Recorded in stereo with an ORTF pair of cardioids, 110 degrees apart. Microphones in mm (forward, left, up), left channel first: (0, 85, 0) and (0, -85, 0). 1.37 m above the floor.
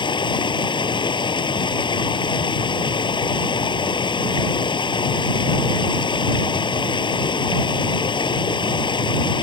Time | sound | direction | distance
0.0 | running water | 25° left | ?